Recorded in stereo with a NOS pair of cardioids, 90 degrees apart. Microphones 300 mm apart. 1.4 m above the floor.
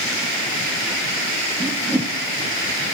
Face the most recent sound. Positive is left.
turn(degrees=-5)